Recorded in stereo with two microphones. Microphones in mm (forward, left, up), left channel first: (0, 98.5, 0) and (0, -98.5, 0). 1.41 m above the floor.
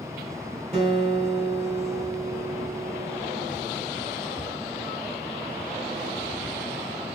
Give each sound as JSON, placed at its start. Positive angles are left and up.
{"t": 0.7, "sound": "a guitar", "side_deg": -30, "distance_m": 4.0}